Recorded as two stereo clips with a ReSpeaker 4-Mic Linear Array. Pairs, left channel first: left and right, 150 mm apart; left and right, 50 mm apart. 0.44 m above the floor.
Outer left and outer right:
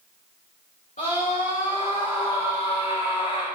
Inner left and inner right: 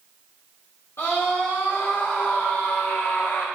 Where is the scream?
65° left (ahead or behind), 4.5 m; by 3.5 s 50° left (ahead or behind), 3.5 m.